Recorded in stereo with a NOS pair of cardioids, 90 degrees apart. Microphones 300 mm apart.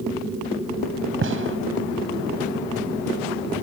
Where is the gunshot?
45° right.